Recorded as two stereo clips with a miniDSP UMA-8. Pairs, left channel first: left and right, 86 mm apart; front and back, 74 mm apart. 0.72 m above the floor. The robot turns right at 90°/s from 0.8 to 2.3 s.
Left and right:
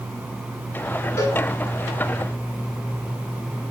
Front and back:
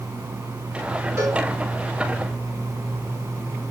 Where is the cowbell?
140° left, 2.5 m; by 1.4 s 160° left, 2.5 m.